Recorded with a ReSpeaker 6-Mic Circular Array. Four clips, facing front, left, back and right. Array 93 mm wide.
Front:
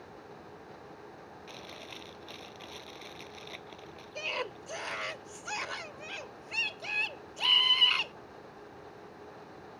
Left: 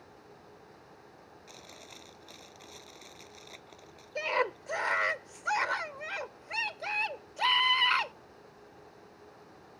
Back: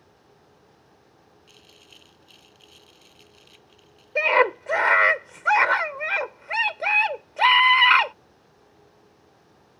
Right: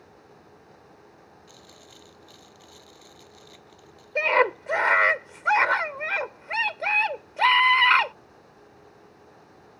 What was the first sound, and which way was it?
Chewing, 15° left.